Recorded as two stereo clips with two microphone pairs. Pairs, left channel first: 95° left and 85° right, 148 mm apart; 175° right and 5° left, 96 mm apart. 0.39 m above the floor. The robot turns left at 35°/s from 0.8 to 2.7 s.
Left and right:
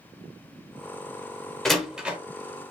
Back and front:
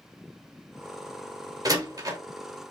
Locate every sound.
1.6 s a door slam: 5° left, 0.8 m; by 2.2 s 15° right, 0.8 m